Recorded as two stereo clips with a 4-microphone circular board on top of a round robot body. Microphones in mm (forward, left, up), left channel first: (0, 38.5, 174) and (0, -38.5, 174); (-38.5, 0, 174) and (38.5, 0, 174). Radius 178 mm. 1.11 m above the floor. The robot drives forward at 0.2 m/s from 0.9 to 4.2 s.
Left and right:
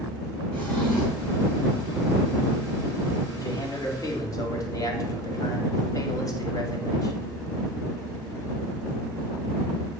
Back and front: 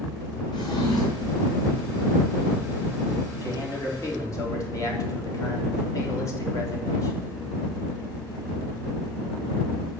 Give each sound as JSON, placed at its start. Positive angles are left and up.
{"t": 0.5, "sound": "a drawer", "azimuth_deg": 165, "distance_m": 4.0}
{"t": 3.4, "sound": "a man speaking", "azimuth_deg": 130, "distance_m": 2.0}